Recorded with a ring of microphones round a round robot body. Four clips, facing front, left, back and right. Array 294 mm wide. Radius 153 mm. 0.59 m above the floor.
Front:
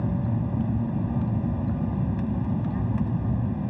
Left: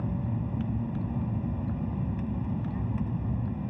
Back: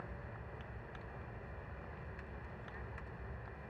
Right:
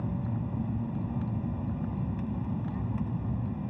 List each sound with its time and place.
0.0 s an aircraft: straight ahead